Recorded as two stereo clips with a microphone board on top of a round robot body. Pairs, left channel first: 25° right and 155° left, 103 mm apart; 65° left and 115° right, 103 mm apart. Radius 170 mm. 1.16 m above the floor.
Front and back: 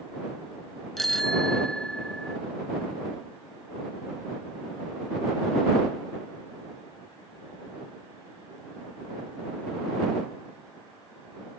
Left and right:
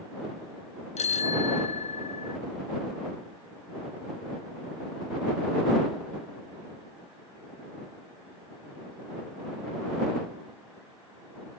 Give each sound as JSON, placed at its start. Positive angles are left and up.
{"t": 1.0, "sound": "a bicycle bell", "azimuth_deg": 65}